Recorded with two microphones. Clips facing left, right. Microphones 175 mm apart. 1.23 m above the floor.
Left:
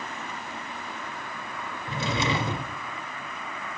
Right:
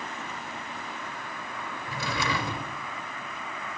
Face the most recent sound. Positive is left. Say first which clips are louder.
# left 4 dB
turn(degrees=25)  # may be behind; listen again after turning